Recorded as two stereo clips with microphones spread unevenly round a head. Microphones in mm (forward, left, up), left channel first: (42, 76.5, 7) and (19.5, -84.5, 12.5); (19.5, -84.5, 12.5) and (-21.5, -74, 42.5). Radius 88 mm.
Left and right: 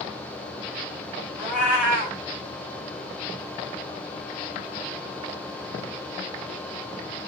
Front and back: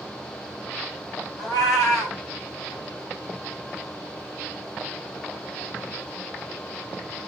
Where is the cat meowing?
20° right, 1.5 m.